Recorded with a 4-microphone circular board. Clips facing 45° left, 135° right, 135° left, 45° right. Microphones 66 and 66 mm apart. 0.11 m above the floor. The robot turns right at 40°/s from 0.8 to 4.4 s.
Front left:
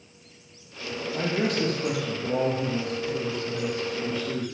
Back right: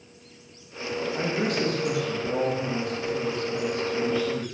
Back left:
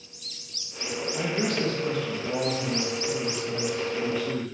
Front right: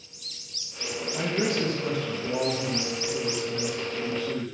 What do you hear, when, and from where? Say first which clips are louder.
1.1 s a man speaking: front left 2 dB, front right 1 dB; 10° left, 3.5 m; by 4.5 s 140° left, 3.5 m